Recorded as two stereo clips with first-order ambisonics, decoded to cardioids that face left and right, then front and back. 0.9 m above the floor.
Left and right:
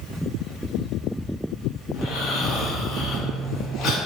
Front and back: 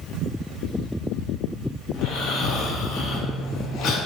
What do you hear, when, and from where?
1.9 s snoring: 45° left, 0.7 m